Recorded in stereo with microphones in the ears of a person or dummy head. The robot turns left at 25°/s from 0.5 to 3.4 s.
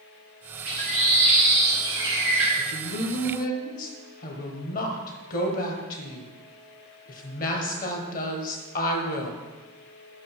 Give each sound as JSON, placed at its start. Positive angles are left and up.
{"t": 0.7, "sound": "a bird", "azimuth_deg": -125, "distance_m": 3.0}
{"t": 2.6, "sound": "a woman speaking", "side_deg": 70, "distance_m": 1.3}